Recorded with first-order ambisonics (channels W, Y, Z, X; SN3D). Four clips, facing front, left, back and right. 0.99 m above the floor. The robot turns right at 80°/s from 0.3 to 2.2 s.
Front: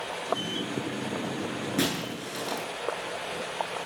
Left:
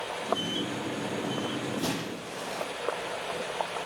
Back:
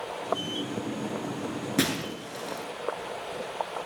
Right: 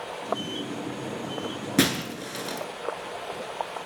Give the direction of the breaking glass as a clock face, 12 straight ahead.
3 o'clock.